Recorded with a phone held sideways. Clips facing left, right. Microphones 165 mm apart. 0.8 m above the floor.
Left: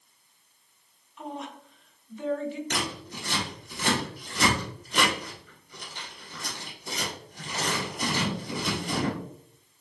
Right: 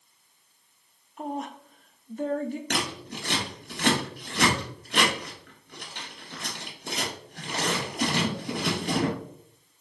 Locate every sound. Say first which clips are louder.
1.2 s a woman speaking: right 4 dB; 45° right (ahead or behind), 0.6 m
2.7 s scissors: right 2 dB; 70° right (ahead or behind), 1.8 m